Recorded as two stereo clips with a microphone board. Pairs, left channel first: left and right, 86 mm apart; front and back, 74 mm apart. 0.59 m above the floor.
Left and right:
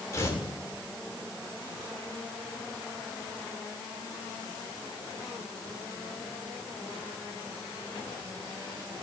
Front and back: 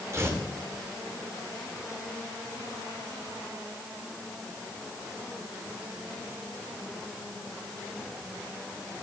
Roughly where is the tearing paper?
Behind left.